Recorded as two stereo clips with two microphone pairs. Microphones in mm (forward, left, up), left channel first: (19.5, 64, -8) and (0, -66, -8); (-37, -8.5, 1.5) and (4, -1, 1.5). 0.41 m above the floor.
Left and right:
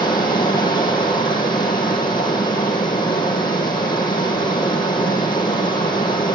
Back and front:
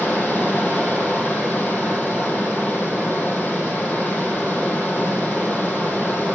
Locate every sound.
0.0 s running water: 140° left, 6 m